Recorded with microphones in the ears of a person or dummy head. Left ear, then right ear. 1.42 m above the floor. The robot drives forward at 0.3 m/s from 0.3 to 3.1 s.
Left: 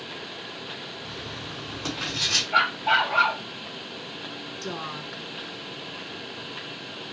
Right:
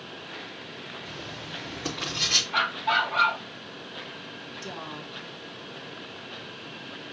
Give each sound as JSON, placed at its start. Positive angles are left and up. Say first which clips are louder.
{"t": 1.0, "sound": "writing", "louder": "left 2 dB", "side_deg": 20, "distance_m": 3.5}
{"t": 2.5, "sound": "a dog barking", "louder": "left 3 dB", "side_deg": 45, "distance_m": 3.0}
{"t": 4.6, "sound": "a woman speaking", "louder": "left 5 dB", "side_deg": 60, "distance_m": 1.0}